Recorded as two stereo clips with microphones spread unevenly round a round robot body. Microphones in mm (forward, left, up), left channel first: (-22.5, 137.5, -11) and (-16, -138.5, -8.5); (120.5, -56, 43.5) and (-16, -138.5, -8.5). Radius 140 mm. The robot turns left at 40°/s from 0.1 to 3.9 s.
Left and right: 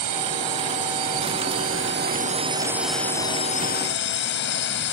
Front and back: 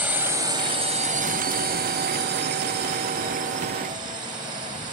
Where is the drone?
65° right; by 5.0 s 140° left.